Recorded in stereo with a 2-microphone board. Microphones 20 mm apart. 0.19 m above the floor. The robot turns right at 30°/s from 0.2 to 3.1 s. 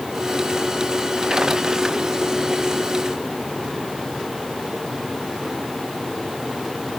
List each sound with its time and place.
Only background noise.